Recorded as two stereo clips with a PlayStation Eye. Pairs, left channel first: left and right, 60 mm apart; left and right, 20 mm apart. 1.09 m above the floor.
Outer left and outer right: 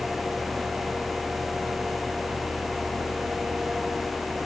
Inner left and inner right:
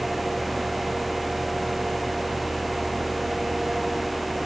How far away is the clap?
No clap in this recording.